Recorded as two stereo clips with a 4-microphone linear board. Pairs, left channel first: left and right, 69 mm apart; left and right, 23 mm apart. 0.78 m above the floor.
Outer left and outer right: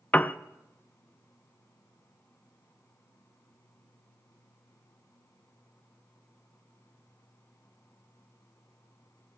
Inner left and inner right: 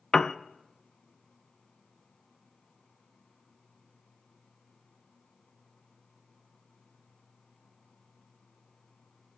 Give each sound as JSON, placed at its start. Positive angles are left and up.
{"t": 0.1, "sound": "a piano", "side_deg": 25, "distance_m": 0.5}